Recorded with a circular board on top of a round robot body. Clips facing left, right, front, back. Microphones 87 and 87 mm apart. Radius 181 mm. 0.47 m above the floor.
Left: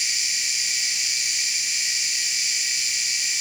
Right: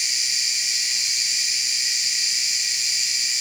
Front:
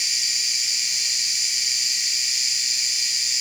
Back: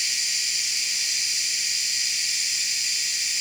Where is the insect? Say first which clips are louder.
Left 1 dB, even; 20° right, 8.5 m.